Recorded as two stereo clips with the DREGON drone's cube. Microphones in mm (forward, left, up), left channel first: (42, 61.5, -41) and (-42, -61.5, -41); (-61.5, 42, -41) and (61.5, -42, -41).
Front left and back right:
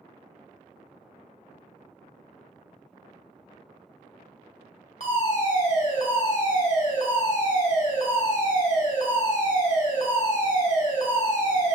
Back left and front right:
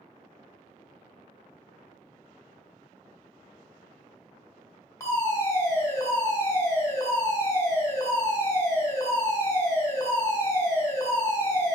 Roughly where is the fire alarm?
Left.